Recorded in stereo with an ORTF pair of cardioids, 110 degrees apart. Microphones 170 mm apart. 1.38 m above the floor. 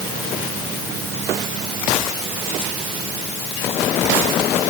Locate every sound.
Only background noise.